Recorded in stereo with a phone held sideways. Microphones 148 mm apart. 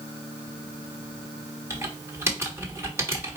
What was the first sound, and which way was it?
Typing on a keyboard, 15° right (ahead or behind).